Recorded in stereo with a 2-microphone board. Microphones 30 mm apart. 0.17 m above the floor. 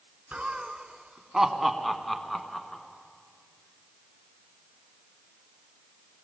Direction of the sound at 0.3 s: 40° right (ahead or behind).